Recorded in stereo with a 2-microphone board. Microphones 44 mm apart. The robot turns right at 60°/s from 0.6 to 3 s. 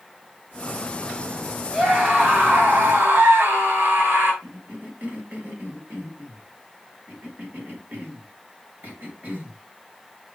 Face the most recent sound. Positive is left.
turn(degrees=-45)  # may be behind; listen again after turning